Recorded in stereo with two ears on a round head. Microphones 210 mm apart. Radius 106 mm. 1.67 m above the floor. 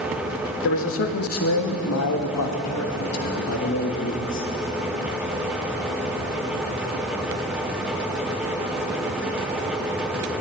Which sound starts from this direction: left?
A man speaking, at 0.6 s.